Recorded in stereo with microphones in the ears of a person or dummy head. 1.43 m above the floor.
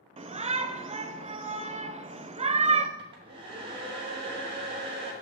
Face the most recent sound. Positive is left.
turn(degrees=-30)  # may be behind; listen again after turning